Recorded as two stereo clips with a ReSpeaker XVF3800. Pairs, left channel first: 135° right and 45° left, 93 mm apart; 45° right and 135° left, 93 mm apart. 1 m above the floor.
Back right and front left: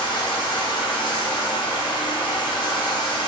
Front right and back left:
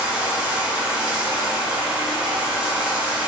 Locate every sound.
0.0 s running water: 145° right, 0.7 m